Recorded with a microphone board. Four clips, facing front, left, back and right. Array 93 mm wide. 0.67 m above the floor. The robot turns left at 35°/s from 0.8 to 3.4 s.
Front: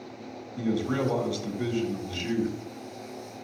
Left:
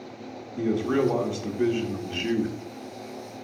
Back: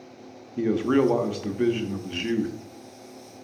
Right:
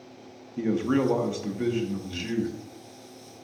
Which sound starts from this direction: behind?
A man speaking, at 0.6 s.